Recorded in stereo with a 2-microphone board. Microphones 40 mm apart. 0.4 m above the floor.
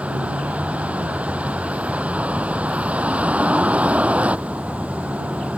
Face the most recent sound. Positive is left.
turn(degrees=-35)  # may be behind; listen again after turning